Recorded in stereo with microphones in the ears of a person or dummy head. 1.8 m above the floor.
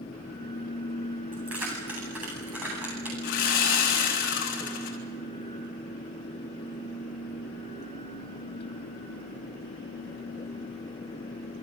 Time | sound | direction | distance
1.3 | keys jangling | 10° right (ahead or behind) | 9.5 m
3.2 | sawing | 60° left (ahead or behind) | 4 m